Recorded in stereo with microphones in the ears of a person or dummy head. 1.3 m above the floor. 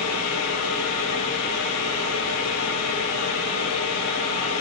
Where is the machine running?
80° left, 1.6 m.